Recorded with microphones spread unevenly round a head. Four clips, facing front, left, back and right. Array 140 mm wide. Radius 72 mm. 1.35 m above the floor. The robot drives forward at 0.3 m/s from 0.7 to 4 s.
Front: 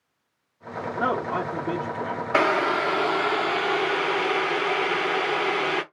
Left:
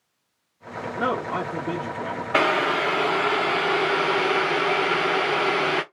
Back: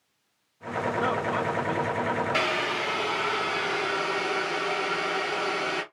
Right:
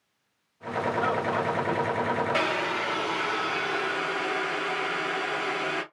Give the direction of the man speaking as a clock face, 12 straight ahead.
10 o'clock.